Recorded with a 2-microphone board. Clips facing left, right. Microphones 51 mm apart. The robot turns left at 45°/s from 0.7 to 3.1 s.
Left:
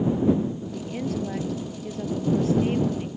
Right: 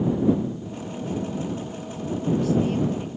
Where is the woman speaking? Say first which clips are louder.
Left 2 dB; 115° left; by 3.1 s 10° left.